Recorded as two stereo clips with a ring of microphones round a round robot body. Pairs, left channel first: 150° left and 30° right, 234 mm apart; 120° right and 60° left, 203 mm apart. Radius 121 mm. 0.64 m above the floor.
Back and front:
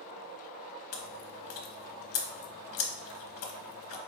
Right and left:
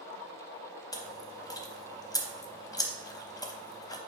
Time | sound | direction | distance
0.9 | chewing | 170° left | 0.8 m